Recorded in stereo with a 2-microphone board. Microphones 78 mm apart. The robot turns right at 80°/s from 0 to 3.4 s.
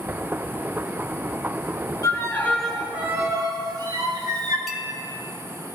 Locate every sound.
2.0 s a violin: 125° left, 1.9 m; by 4.6 s 125° right, 1.9 m
4.7 s a clink: centre (ahead or behind), 1.5 m